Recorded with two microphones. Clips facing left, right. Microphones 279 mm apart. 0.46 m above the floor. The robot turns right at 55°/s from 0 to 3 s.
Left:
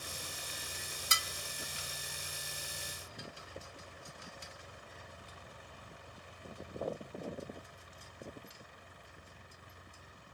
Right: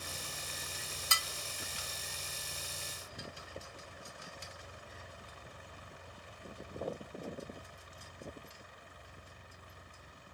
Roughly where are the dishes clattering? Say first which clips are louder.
Even; left.